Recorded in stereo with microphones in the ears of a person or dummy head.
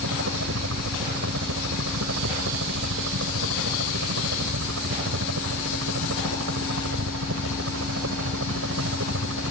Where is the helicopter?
75° right (ahead or behind).